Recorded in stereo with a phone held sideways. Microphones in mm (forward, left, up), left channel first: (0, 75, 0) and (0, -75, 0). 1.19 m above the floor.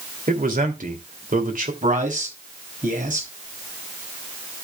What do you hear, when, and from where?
0.3 s a man speaking: 70° right (ahead or behind), 3 m
1.8 s a man speaking: 60° right (ahead or behind), 6 m